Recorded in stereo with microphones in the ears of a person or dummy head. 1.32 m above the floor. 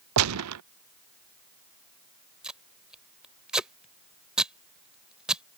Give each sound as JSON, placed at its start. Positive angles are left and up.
{"t": 0.2, "sound": "a gunshot", "side_deg": -75}
{"t": 2.4, "sound": "tape being pulled", "side_deg": -10}